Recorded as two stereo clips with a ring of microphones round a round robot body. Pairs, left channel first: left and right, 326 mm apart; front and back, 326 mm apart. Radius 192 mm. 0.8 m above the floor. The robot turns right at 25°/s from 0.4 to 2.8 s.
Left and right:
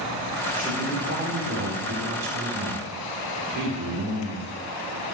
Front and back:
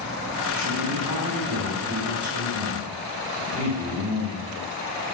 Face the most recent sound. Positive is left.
turn(degrees=-120)